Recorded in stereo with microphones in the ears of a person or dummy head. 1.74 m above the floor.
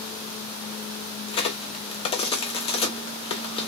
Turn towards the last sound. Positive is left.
turn(degrees=30)  # may be behind; listen again after turning